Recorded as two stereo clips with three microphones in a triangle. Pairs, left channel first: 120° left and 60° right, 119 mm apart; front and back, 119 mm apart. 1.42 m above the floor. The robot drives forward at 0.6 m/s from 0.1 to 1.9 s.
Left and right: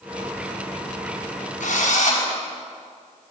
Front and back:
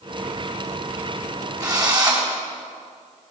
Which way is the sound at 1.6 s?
120° left.